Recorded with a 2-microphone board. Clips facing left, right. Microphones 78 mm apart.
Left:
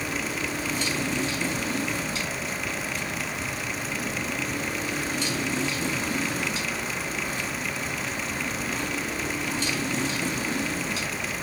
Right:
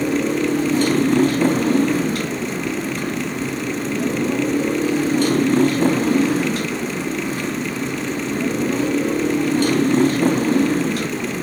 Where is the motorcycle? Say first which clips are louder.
Right 12 dB; 55° right (ahead or behind).